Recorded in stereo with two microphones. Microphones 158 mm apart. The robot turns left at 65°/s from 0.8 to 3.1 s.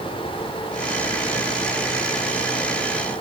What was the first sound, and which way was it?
Only background noise.